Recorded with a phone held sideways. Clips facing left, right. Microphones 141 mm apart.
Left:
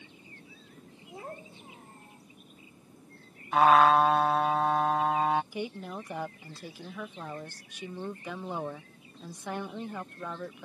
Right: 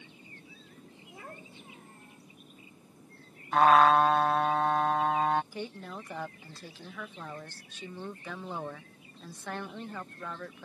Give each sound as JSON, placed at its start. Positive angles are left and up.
{"t": 1.1, "sound": "a child speaking", "side_deg": 25}
{"t": 3.5, "sound": "a trumpet", "side_deg": 5}
{"t": 5.5, "sound": "a woman speaking", "side_deg": 15}